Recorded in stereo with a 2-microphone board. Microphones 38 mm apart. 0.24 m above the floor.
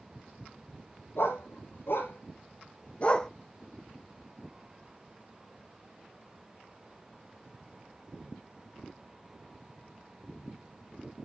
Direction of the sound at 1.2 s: 80° left.